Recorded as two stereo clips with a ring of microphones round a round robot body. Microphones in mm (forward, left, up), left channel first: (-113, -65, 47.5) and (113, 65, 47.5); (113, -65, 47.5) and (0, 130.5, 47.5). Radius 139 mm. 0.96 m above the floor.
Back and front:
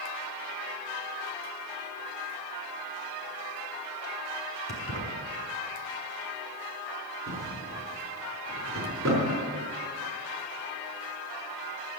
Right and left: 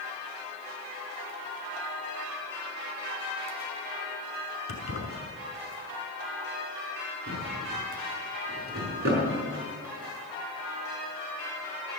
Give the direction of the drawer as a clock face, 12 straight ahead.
10 o'clock.